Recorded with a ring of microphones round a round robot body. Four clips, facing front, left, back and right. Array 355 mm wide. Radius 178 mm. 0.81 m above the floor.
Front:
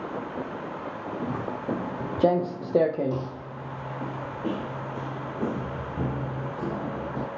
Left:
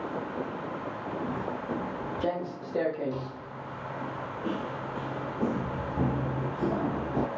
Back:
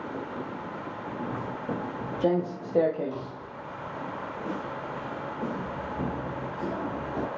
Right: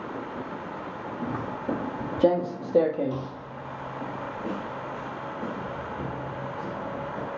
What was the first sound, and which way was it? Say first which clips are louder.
Footsteps: right 4 dB, front 3 dB; 35° right.